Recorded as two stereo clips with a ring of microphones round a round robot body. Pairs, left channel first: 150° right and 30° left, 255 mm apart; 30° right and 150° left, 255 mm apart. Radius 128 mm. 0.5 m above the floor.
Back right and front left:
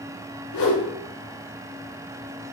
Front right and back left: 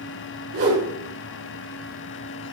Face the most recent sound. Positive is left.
turn(degrees=-160)